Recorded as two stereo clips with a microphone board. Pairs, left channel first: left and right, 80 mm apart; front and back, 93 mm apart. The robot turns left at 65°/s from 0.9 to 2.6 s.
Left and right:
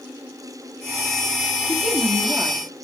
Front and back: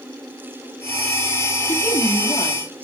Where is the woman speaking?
10° left, 1.8 m; by 2.7 s 50° right, 1.8 m.